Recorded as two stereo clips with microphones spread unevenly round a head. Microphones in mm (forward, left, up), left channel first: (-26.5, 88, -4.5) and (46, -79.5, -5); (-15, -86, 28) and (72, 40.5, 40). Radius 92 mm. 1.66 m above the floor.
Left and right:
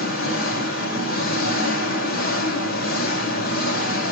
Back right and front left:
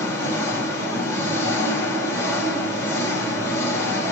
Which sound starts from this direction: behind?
An engine running, at 0.0 s.